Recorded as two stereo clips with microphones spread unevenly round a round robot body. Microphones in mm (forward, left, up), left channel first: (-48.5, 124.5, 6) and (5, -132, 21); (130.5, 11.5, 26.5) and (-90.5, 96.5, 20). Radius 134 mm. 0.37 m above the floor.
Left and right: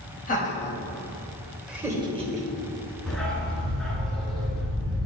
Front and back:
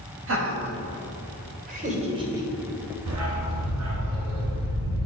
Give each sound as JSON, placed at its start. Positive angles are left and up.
{"t": 0.3, "sound": "laughter", "azimuth_deg": 155, "distance_m": 2.0}
{"t": 3.1, "sound": "a dog barking", "azimuth_deg": -170, "distance_m": 2.0}